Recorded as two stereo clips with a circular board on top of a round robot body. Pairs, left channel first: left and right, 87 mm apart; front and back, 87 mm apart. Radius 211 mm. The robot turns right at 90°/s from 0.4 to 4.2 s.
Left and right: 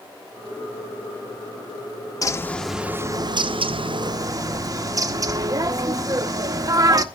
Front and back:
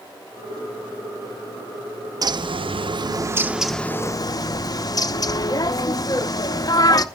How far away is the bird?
About 1.0 m.